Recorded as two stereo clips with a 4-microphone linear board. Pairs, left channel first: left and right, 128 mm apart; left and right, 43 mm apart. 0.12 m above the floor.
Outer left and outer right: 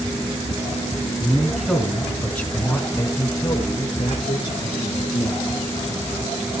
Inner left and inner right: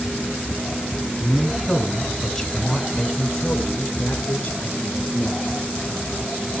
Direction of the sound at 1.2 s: 15° right (ahead or behind).